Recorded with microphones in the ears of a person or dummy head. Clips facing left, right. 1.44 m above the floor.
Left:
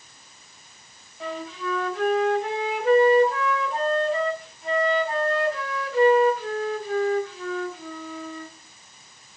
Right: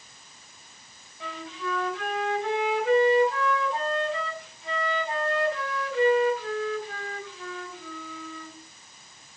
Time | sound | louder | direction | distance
1.2 | a flute | left 4 dB | 35° left (ahead or behind) | 4 m